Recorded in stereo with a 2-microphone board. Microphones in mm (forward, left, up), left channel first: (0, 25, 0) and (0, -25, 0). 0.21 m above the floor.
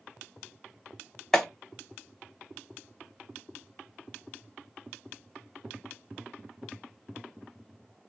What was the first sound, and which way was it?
A clap, 10° left (ahead or behind).